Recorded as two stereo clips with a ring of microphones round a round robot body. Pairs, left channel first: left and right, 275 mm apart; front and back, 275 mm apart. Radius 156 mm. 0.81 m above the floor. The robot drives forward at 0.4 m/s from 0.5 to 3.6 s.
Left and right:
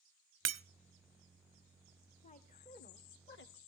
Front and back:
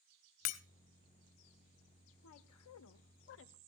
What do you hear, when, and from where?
0.5 s breaking glass: 40° right, 1.0 m
2.2 s a woman speaking: 25° left, 1.2 m; by 3.6 s 45° left, 0.8 m